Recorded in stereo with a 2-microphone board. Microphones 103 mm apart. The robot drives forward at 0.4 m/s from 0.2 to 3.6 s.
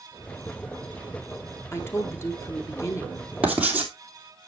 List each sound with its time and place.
1.7 s a woman speaking: 25° left (ahead or behind), 2 m; by 3.2 s 30° left (ahead or behind), 1.8 m
3.4 s writing: 15° right (ahead or behind), 2.5 m